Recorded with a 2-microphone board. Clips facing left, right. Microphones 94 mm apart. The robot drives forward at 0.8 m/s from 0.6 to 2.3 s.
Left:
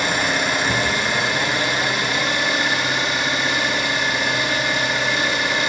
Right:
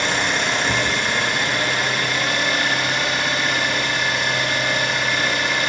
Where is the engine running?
5° left (ahead or behind), 3 m.